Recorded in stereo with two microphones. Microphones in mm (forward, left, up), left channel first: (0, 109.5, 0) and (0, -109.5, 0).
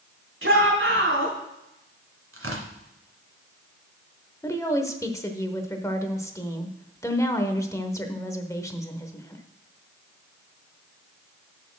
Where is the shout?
70° right (ahead or behind), 3 m.